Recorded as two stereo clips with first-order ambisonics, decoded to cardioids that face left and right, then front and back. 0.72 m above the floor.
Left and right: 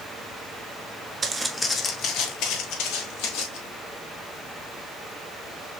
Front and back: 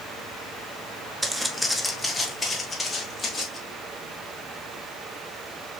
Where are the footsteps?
110° right, 0.7 m; by 3.6 s 80° left, 1.9 m.